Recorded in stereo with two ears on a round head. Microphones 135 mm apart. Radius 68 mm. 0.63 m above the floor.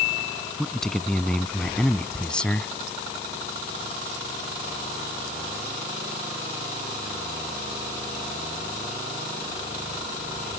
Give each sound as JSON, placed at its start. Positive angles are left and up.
{"t": 0.6, "sound": "a man speaking", "side_deg": 5}